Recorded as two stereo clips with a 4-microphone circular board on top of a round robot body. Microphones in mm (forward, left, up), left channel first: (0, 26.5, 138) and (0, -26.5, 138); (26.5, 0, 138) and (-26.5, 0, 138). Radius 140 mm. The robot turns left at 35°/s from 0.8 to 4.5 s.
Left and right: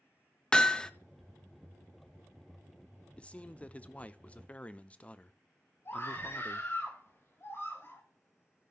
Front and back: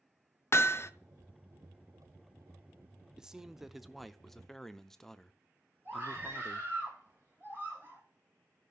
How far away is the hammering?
About 0.8 m.